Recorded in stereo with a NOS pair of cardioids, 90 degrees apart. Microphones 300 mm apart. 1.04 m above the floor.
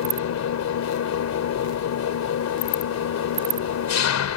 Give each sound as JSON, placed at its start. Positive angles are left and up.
{"t": 0.0, "sound": "an engine running", "azimuth_deg": 65}